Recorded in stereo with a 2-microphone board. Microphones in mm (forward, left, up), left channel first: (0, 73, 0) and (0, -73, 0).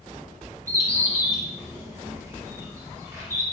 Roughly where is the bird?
Right.